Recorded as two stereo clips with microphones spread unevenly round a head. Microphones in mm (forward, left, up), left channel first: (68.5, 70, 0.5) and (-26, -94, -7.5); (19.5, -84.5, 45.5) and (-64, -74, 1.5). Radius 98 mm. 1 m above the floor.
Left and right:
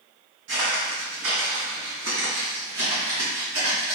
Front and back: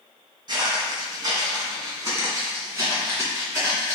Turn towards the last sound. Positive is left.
turn(degrees=-110)